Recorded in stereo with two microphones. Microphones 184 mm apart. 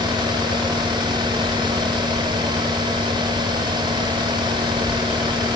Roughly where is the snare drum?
No snare drum in this recording.